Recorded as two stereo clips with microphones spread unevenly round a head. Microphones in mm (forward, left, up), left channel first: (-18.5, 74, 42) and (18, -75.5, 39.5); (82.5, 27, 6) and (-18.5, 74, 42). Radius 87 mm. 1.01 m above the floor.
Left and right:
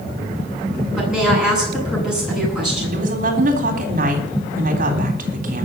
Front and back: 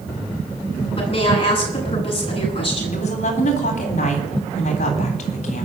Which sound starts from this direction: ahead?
A woman speaking, at 1.0 s.